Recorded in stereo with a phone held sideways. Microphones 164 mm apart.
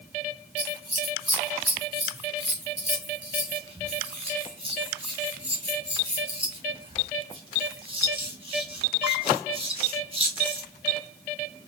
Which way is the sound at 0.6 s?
30° right (ahead or behind).